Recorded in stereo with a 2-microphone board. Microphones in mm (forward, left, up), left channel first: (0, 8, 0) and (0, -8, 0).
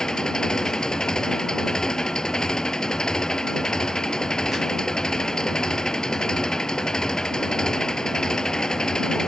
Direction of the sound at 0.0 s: 40° left (ahead or behind).